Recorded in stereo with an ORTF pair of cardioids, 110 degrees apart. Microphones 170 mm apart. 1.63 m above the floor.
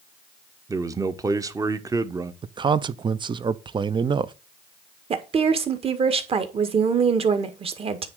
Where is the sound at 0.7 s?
20° right, 1.1 m.